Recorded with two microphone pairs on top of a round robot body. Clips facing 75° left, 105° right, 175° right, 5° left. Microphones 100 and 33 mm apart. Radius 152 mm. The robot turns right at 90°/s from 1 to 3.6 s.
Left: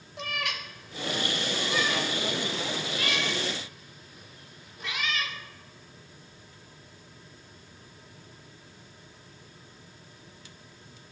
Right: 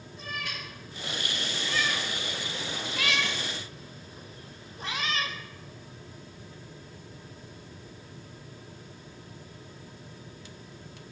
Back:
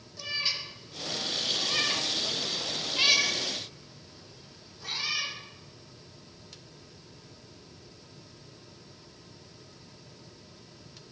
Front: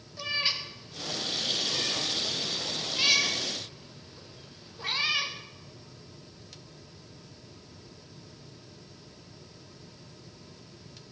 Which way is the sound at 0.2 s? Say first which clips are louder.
Left 4 dB, front 2 dB; 85° left.